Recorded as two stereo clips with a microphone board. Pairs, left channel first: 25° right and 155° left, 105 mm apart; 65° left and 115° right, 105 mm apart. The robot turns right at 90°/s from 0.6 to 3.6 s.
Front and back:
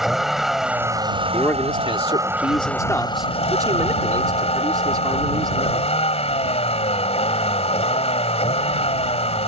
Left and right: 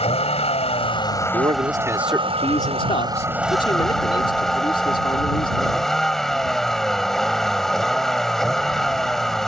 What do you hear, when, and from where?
0.0 s a vehicle: 70° left; by 9.5 s 20° right
1.3 s a man speaking: 100° right; by 5.9 s 105° left